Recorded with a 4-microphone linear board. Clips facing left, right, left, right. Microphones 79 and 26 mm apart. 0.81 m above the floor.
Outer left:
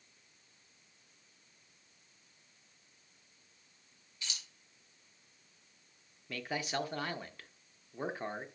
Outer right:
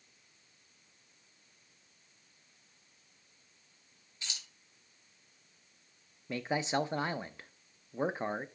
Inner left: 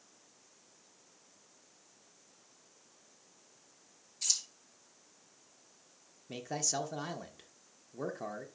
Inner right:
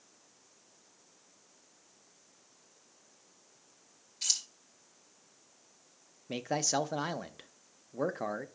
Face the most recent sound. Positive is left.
turn(degrees=-25)  # may be behind; listen again after turning